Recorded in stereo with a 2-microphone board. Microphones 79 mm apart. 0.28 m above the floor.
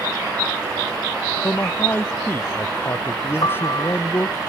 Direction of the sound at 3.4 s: 55° left (ahead or behind).